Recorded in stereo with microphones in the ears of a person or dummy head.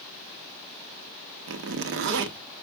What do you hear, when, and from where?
1.5 s a zipper: 55° right (ahead or behind), 0.6 m